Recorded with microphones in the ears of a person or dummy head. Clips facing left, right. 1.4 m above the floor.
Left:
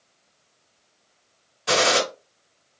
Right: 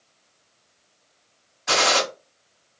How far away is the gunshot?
About 1.9 m.